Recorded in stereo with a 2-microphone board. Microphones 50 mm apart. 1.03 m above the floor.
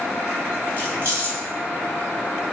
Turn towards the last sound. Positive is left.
turn(degrees=-45)  # may be behind; listen again after turning